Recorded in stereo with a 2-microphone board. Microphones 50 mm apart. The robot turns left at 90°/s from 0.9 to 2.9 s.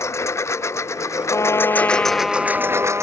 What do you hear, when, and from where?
0.0 s a lawn mower: 110° left; by 3.0 s 70° right
1.3 s a trumpet: 100° left; by 3.0 s 45° right